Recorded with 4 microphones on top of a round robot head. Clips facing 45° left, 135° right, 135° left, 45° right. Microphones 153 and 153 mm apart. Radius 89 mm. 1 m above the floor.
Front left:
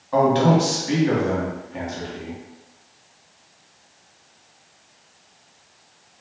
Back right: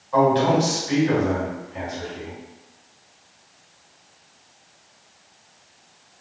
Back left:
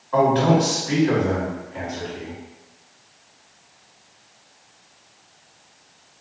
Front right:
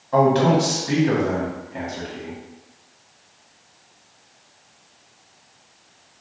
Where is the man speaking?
5° left, 1.3 m.